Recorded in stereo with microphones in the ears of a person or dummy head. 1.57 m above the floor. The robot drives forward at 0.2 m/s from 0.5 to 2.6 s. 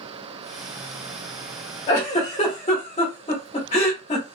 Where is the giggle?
30° left (ahead or behind), 1.2 m.